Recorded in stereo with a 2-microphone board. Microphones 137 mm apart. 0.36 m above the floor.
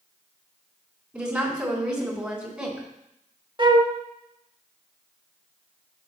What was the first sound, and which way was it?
A woman speaking, 5° right (ahead or behind).